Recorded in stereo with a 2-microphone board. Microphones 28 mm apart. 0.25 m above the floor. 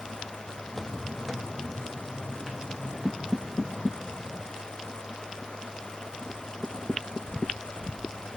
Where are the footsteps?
15° left (ahead or behind), 0.6 m; by 4.5 s 15° right (ahead or behind), 3 m.